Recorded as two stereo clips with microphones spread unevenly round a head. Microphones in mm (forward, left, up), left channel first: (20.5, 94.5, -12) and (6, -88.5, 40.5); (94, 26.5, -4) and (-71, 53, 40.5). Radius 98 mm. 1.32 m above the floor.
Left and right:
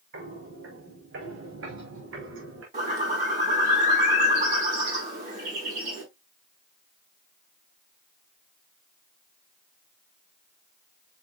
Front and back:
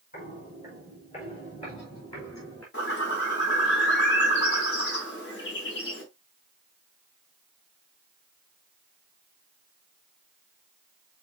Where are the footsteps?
70° right, 6 m; by 2.6 s 85° right, 5.5 m.